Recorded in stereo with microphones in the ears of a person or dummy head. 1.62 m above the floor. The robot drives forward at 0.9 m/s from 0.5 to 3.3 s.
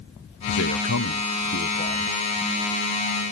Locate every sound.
0.5 s a man speaking: 85° left; by 2.2 s 35° left (ahead or behind)